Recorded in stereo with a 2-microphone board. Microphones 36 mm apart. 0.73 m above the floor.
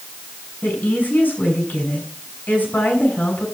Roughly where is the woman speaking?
Left.